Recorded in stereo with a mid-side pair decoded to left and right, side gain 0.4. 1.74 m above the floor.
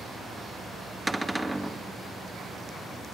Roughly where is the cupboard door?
Ahead.